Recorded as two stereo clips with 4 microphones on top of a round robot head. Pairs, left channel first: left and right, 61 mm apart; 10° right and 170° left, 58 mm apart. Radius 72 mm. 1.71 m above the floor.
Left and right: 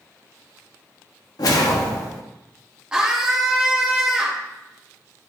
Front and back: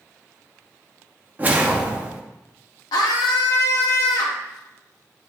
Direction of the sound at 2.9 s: 10° right.